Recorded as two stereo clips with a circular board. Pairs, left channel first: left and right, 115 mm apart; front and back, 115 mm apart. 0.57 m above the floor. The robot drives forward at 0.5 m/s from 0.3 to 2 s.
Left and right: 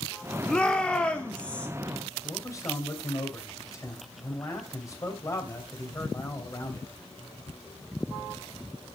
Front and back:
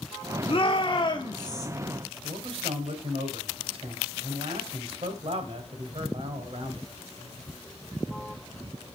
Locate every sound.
0.5 s a shout: 10° left, 1.6 m; by 1.7 s 20° left, 1.2 m
2.2 s a man speaking: 150° left, 2.5 m